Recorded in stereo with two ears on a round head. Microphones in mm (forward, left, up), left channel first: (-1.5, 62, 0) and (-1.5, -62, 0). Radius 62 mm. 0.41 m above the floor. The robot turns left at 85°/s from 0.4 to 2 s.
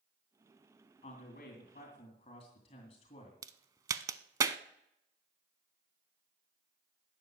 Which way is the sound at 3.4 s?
25° right (ahead or behind).